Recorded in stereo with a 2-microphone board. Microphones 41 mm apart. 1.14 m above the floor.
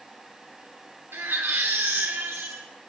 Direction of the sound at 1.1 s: 85° right.